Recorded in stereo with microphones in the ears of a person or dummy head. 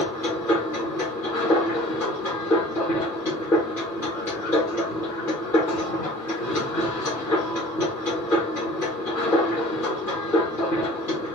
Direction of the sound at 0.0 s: 5° left (ahead or behind).